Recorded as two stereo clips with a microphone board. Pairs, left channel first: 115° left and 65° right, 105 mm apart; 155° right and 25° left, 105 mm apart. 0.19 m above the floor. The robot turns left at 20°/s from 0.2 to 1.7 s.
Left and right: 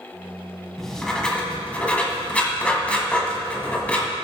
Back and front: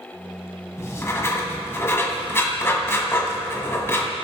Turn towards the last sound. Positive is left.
turn(degrees=175)